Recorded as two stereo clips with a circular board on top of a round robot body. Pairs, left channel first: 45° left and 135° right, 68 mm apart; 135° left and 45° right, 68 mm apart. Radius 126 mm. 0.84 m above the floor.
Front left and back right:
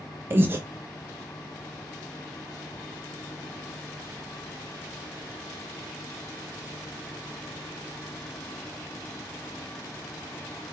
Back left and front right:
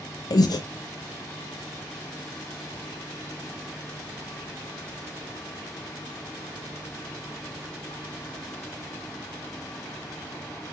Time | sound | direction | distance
0.3 | breathing | 165° left | 0.6 m